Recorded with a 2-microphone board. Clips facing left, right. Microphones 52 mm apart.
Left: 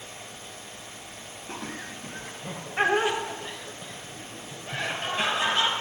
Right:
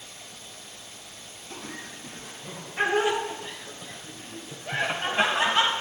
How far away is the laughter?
About 2.5 m.